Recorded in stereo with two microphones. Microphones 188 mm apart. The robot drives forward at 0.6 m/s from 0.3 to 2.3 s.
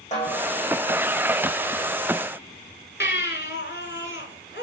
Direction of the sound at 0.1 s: 40° left (ahead or behind).